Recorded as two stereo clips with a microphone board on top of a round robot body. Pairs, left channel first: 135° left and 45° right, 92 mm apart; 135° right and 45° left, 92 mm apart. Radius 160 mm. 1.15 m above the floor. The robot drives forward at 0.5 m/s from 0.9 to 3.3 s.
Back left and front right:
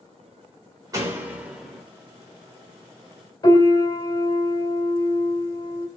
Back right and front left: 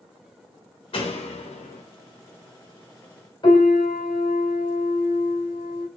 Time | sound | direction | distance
0.9 | a door slam | 100° right | 0.7 m
3.4 | a piano | 175° right | 2 m